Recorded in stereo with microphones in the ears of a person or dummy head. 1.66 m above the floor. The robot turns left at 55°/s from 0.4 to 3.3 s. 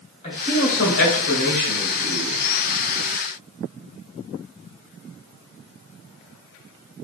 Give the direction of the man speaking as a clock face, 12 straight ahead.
7 o'clock.